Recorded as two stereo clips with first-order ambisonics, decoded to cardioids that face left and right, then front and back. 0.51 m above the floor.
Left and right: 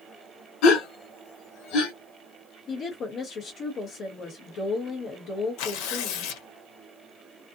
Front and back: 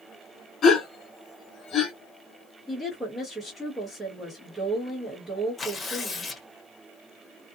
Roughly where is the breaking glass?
I don't hear breaking glass.